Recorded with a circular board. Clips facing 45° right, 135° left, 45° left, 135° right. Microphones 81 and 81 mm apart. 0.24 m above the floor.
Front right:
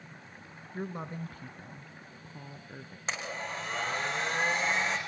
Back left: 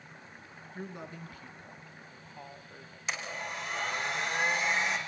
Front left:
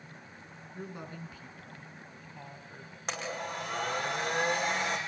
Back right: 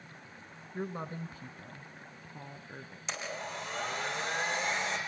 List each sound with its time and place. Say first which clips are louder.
0.7 s a woman speaking: front right 5 dB, back right 5 dB; 85° right, 2 m; by 3.0 s 75° right, 4.5 m
3.1 s a blender: front right 1 dB, front left 3 dB; 10° left, 8.5 m